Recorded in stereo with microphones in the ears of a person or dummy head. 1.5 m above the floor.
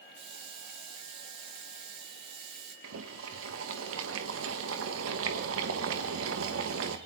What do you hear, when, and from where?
0.2 s a hiss: 70° right (ahead or behind), 6 m
2.8 s boiling: 85° right, 2 m